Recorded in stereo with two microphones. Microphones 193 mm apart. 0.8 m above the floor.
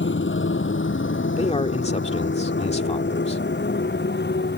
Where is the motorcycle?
80° left; by 4.6 s 60° left (ahead or behind).